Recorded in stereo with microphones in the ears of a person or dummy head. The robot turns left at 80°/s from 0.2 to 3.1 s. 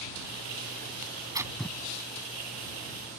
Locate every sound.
1.0 s tearing paper: 50° right (ahead or behind); by 1.8 s 10° left (ahead or behind)